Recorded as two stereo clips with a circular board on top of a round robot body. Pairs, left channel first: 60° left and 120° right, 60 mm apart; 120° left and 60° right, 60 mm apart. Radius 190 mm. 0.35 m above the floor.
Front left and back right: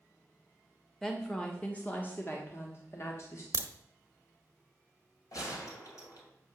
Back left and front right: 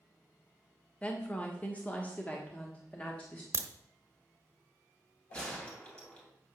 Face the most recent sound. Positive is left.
turn(degrees=45)